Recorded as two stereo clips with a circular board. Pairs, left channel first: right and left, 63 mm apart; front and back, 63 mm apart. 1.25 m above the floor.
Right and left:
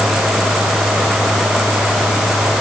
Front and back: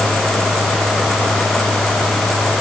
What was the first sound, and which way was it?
Only background noise.